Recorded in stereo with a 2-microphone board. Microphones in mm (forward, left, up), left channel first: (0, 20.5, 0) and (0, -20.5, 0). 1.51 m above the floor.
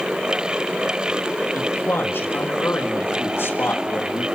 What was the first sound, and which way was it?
A man speaking, 65° left (ahead or behind).